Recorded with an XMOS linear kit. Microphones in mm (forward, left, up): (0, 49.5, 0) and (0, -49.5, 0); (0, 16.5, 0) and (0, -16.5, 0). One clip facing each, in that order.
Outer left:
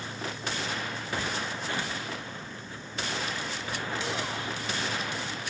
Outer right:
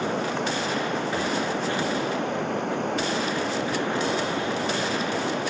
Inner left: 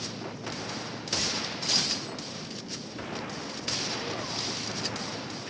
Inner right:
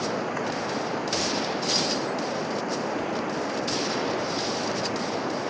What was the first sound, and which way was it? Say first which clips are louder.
Running water: outer right 11 dB, inner right 10 dB; 70° right (ahead or behind).